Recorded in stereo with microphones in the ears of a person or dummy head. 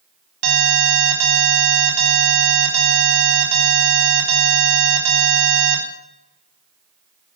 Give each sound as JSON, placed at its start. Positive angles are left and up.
{"t": 0.4, "sound": "an alarm", "side_deg": -75, "distance_m": 3.5}